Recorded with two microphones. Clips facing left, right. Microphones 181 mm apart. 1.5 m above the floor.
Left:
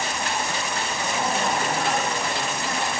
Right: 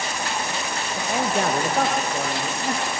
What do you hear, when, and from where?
1.0 s a man speaking: 65° right (ahead or behind), 2 m; by 2.9 s 60° right (ahead or behind), 2 m